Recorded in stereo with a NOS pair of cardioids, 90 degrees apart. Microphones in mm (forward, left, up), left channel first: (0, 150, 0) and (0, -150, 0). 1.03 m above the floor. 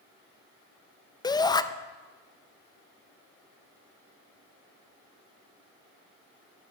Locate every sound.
1.2 s a shout: 15° left, 0.5 m